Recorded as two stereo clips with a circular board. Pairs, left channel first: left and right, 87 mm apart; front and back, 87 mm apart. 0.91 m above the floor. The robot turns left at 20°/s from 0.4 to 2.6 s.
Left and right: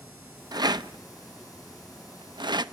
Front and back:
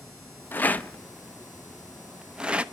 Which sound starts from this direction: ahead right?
A rattle, at 0.5 s.